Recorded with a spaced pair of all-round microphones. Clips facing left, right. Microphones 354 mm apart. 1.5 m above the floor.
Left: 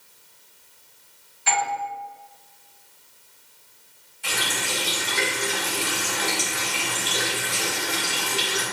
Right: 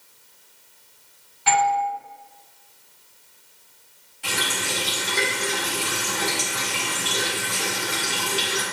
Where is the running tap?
75° right (ahead or behind), 3 m.